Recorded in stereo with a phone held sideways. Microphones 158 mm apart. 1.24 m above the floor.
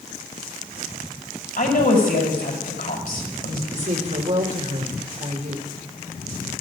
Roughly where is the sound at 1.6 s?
Left.